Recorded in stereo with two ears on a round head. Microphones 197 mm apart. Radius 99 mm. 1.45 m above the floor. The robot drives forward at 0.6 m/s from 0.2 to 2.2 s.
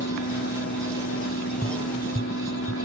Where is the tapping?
5° left (ahead or behind); by 2.8 s 10° left (ahead or behind).